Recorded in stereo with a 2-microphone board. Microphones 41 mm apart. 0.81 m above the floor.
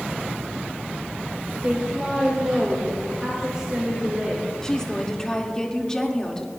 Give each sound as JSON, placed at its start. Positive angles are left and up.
{"t": 1.6, "sound": "a woman speaking", "side_deg": -25, "distance_m": 3.0}
{"t": 4.6, "sound": "a woman speaking", "side_deg": 15, "distance_m": 2.0}